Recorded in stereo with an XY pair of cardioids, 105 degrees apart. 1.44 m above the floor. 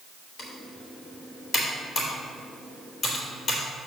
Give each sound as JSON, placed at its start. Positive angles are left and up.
{"t": 0.4, "sound": "typing on a keyboard", "azimuth_deg": 45, "distance_m": 3.0}